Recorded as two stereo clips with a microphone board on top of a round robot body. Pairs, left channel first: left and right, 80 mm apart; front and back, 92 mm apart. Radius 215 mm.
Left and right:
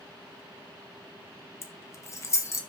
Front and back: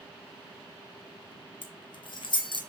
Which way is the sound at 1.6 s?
35° left.